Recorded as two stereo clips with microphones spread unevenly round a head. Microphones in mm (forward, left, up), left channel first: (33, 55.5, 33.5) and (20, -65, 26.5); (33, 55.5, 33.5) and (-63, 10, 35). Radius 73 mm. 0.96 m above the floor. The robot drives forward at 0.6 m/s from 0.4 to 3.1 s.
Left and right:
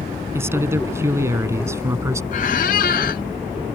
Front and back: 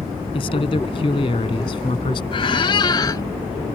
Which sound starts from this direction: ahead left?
A squeak, at 2.3 s.